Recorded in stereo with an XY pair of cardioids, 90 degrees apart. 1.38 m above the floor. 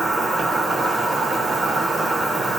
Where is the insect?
40° right, 1.0 m.